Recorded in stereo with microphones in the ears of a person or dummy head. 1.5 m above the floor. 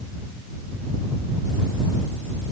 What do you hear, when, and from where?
Only background noise.